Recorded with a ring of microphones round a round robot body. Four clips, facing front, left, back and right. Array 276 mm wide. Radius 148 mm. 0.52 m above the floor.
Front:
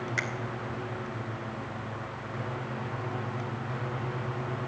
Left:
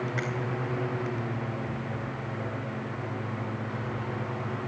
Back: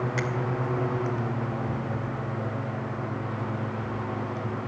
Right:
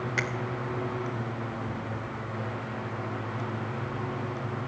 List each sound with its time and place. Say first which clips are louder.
0.2 s a finger snap: right 1 dB, back 3 dB; 85° right, 2 m